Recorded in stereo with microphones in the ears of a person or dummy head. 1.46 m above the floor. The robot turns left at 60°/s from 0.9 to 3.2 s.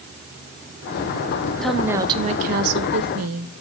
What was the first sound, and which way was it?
A woman speaking, 5° left.